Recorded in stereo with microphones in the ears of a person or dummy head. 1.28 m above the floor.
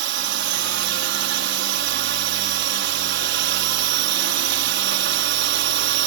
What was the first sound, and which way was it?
A drone, 55° right (ahead or behind).